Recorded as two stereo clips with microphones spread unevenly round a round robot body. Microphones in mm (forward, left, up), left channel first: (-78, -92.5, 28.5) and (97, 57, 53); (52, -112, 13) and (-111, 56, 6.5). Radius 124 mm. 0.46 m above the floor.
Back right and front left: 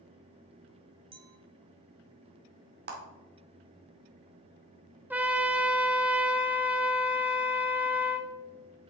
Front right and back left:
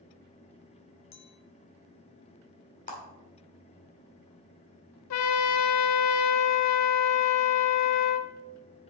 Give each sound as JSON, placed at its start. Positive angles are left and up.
{"t": 1.1, "sound": "a clink", "azimuth_deg": -30, "distance_m": 1.3}
{"t": 2.9, "sound": "a clap", "azimuth_deg": 5, "distance_m": 1.7}
{"t": 5.1, "sound": "a trumpet", "azimuth_deg": -45, "distance_m": 0.8}